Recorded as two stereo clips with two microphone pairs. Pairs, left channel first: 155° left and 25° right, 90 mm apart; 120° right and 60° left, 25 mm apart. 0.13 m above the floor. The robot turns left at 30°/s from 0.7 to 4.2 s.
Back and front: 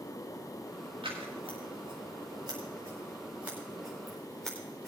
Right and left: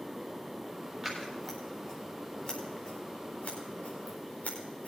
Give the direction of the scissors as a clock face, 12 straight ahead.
1 o'clock.